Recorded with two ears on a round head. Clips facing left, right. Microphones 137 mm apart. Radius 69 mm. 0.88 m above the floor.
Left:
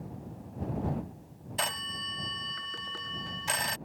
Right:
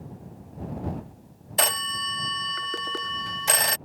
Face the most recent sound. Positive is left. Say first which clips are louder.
# right 8 dB
turn(degrees=-65)  # may be behind; listen again after turning